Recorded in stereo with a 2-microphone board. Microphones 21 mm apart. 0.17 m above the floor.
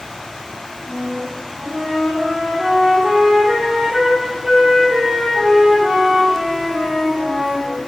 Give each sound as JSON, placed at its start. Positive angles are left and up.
{"t": 0.8, "sound": "a flute", "side_deg": -50, "distance_m": 3.0}